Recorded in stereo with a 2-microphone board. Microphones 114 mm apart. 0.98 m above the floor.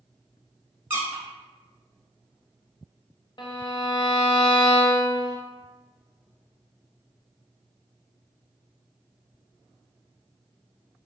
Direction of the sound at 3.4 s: 45° left (ahead or behind).